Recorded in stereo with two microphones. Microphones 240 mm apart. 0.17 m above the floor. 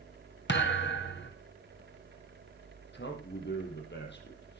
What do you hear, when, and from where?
0.5 s a thud: 50° left (ahead or behind), 3 m
2.9 s a man speaking: 45° left (ahead or behind), 5.5 m